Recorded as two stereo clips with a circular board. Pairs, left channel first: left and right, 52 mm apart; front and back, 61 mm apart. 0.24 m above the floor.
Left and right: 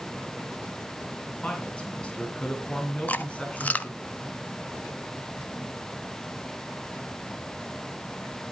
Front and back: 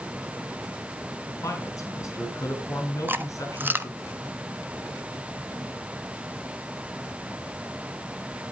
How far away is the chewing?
About 0.9 m.